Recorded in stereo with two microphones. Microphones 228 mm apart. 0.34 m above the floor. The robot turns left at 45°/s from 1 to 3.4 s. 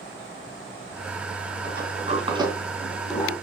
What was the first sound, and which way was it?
A sliding door, 50° right (ahead or behind).